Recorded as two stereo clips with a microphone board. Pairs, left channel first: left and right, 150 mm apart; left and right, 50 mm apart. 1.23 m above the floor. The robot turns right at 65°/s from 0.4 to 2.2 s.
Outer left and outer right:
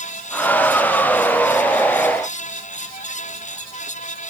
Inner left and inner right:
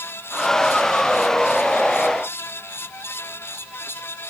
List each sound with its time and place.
Only background noise.